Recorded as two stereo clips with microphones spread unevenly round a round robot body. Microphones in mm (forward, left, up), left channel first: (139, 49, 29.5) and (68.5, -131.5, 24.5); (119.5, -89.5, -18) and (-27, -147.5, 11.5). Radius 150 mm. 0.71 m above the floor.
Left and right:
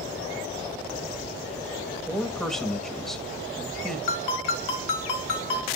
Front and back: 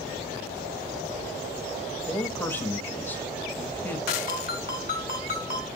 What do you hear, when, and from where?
2.1 s a man speaking: 20° right, 1.2 m
4.1 s a ringtone: 90° left, 1.7 m